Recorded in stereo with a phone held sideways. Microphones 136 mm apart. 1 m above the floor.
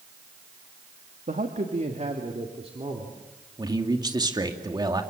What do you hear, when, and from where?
1.3 s a man speaking: 70° right (ahead or behind), 1.9 m; by 3.2 s 40° right (ahead or behind), 3 m
3.6 s a man speaking: 30° right (ahead or behind), 2.5 m